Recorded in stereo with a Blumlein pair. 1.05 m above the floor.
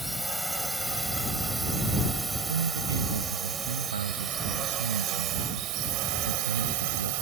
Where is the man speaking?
70° right.